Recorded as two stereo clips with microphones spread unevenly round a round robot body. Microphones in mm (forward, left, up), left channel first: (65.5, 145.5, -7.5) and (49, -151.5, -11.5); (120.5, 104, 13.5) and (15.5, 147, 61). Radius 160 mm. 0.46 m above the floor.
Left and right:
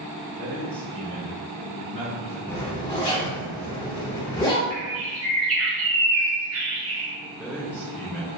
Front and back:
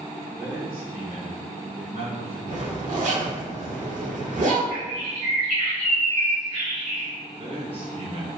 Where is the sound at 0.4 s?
160° right, 1.2 m; by 2.4 s 155° right, 2 m.